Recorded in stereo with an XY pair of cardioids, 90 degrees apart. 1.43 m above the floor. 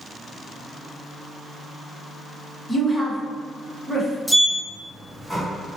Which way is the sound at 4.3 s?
Straight ahead.